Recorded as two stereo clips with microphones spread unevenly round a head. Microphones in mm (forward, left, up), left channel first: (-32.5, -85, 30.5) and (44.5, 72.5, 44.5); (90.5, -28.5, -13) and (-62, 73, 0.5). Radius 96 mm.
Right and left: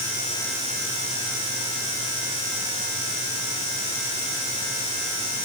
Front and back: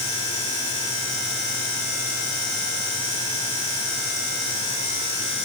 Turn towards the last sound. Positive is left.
No sound to turn to.